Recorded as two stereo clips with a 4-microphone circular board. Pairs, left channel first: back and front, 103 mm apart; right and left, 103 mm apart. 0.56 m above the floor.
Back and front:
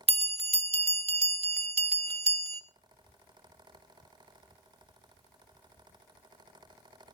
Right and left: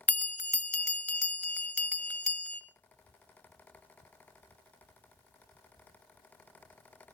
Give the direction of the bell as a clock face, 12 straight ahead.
12 o'clock.